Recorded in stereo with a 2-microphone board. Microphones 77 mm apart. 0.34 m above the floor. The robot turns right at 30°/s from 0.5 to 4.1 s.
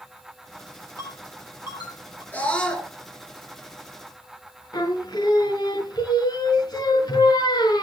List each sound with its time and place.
1.0 s a ringtone: 45° left (ahead or behind), 6.5 m; by 2.2 s 85° left, 6.5 m
2.3 s a scream: 25° left (ahead or behind), 4 m; by 2.9 s 5° left (ahead or behind), 4 m
4.7 s singing: 60° left (ahead or behind), 4.5 m